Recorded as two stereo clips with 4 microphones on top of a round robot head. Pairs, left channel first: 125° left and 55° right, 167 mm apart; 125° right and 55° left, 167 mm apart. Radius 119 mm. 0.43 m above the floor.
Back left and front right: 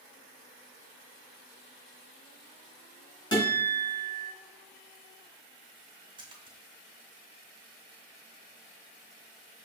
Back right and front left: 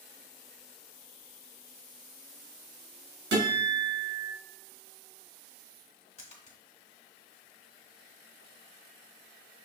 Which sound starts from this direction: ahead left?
A guitar, at 3.3 s.